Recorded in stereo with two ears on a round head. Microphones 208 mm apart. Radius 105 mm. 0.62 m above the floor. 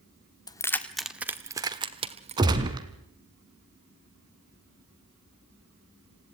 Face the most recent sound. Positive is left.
turn(degrees=-20)  # may be behind; listen again after turning